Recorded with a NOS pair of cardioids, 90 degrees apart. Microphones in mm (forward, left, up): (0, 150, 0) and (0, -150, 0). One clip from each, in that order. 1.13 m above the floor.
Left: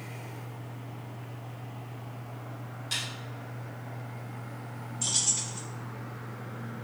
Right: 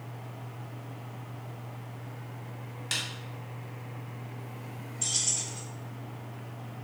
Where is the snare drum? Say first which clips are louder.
Right 1 dB; 55° right, 2 m.